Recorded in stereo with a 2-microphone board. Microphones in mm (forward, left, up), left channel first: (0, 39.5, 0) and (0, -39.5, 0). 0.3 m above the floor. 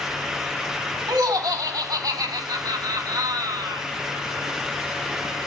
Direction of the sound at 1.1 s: 55° right (ahead or behind).